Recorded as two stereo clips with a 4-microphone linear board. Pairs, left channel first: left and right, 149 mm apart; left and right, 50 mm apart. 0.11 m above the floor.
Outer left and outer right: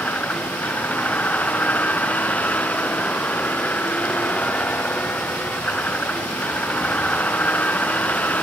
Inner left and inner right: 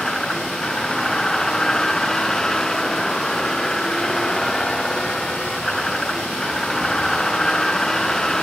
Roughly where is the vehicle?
Centre.